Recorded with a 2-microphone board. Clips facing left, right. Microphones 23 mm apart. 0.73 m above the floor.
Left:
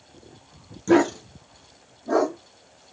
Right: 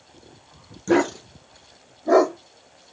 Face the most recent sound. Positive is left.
turn(degrees=-65)  # may be behind; listen again after turning